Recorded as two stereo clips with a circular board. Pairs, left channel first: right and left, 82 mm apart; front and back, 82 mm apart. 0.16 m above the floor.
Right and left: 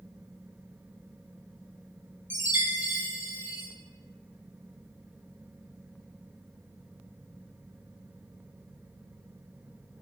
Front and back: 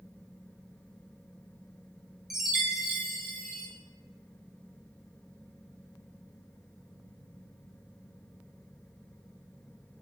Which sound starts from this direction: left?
A chime, at 2.3 s.